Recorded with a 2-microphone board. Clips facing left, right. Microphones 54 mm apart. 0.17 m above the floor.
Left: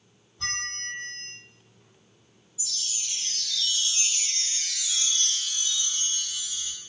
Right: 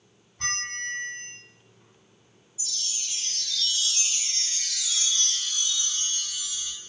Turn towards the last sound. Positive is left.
turn(degrees=5)  # may be behind; listen again after turning